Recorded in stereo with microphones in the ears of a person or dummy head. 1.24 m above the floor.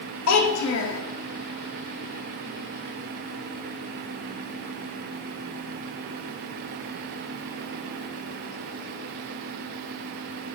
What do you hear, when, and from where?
0.3 s a child speaking: 80° left, 1.1 m